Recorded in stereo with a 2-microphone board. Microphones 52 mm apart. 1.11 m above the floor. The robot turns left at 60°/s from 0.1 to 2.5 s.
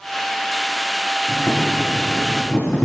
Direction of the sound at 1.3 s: 90° left.